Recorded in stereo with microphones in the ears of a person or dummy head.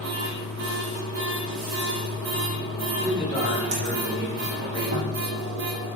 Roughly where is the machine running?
Right.